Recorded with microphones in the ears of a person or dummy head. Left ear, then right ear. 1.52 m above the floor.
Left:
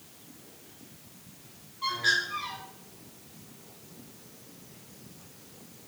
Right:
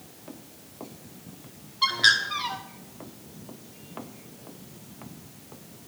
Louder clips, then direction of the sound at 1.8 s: Right 6 dB; 50° right (ahead or behind).